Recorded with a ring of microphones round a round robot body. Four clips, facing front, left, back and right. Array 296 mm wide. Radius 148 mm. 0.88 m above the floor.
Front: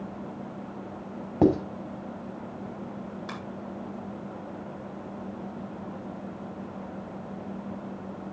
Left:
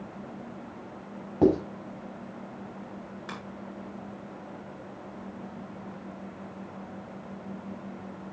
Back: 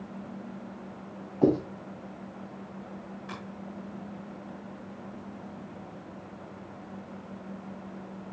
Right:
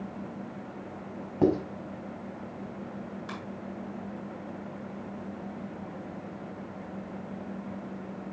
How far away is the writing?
About 5 m.